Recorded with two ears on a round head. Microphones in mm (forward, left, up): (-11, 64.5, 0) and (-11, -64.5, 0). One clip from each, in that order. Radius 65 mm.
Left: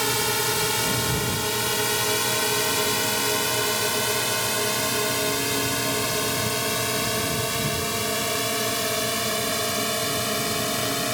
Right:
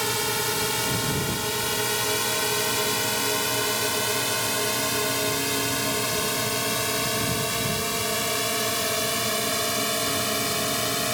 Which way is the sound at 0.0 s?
5° left (ahead or behind).